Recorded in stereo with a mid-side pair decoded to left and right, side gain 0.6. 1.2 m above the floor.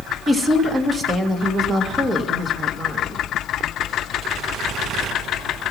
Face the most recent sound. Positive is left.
turn(degrees=-20)